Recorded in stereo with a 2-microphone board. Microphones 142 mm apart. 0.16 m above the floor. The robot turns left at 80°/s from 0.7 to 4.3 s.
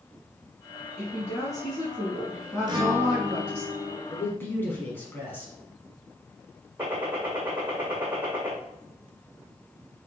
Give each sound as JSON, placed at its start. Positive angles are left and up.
{"t": 1.0, "sound": "a woman speaking", "azimuth_deg": 165, "distance_m": 1.2}
{"t": 2.7, "sound": "a guitar", "azimuth_deg": -35, "distance_m": 1.1}
{"t": 4.1, "sound": "a man speaking", "side_deg": 20, "distance_m": 1.0}
{"t": 6.8, "sound": "a gunshot", "side_deg": -10, "distance_m": 2.0}